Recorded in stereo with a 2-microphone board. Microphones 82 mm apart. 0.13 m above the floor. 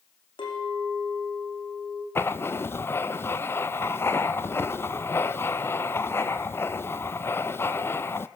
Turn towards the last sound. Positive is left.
turn(degrees=30)  # may be behind; listen again after turning